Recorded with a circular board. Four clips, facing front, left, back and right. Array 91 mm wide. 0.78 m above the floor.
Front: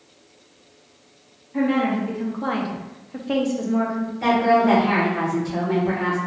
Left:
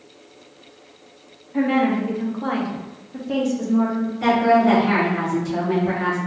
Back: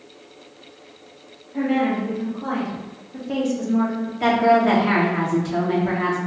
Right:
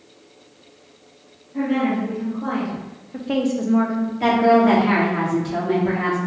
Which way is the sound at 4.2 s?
135° right.